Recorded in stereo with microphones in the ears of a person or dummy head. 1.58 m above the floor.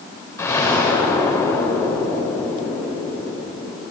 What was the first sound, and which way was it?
An explosion, 20° left (ahead or behind).